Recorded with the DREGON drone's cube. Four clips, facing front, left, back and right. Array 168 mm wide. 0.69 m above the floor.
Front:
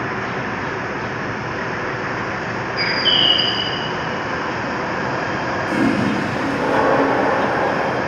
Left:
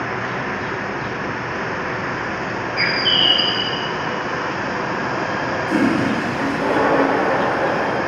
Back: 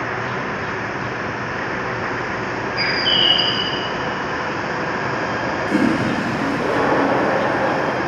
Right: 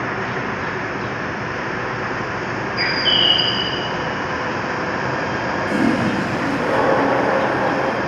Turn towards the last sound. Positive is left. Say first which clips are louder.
# left 1 dB, even
turn(degrees=-20)